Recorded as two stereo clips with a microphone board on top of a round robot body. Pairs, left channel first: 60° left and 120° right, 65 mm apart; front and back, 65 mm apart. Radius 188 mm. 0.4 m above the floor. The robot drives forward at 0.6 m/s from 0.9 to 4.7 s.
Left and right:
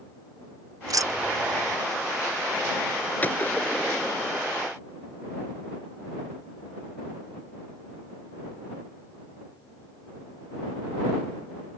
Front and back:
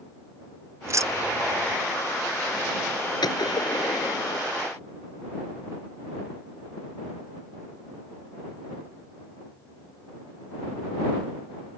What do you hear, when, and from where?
0.9 s keys jangling: 140° right; by 1.8 s 155° right
3.2 s a gunshot: 5° right